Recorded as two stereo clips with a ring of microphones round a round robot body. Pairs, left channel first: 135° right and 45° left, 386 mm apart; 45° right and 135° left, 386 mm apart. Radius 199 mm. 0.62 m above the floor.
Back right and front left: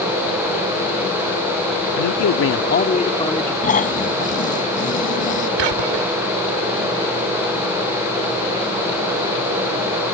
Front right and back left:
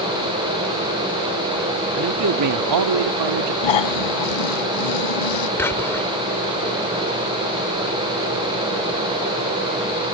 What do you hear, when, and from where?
1.9 s a man speaking: 170° right; by 3.5 s 140° left
3.6 s snoring: 65° right
5.6 s whispering: 40° left